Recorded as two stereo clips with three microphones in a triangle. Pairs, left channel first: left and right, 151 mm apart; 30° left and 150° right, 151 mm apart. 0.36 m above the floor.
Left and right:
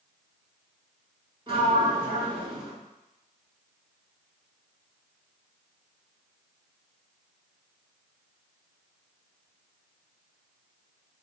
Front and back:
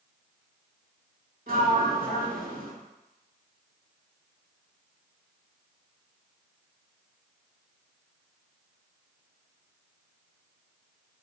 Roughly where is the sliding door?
Behind right.